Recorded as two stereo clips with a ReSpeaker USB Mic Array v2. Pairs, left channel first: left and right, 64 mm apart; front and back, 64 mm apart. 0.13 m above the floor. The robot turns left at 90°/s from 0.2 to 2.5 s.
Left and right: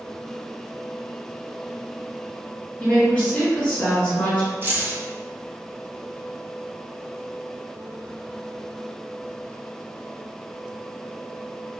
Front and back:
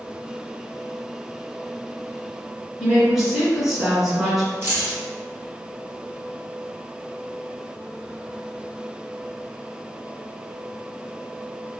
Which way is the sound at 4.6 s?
135° right.